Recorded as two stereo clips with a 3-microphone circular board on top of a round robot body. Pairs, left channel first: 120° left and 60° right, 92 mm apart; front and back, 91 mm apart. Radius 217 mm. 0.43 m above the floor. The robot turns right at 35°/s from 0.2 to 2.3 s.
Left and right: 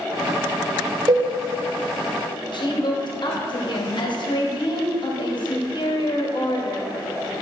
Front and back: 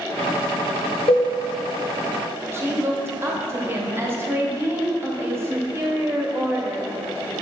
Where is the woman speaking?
125° left, 1.4 m.